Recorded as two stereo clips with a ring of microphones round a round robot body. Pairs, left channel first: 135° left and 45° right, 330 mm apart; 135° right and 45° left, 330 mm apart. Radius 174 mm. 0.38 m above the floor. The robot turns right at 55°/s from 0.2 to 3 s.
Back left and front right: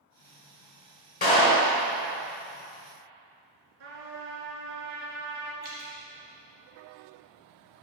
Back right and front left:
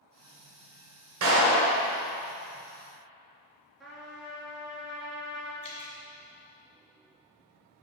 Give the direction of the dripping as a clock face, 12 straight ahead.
4 o'clock.